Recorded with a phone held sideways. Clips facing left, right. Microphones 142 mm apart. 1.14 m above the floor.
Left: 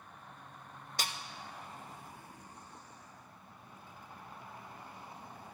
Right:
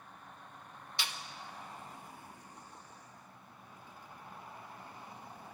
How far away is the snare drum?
About 0.5 m.